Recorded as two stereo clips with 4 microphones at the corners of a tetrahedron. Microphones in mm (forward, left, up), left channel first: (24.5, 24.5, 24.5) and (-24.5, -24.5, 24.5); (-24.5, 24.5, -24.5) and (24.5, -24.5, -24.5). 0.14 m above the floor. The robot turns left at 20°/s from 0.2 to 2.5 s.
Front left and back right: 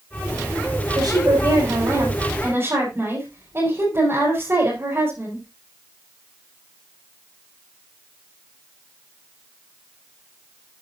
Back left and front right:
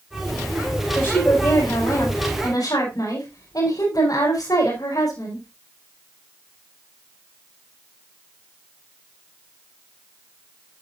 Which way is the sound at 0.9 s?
155° right.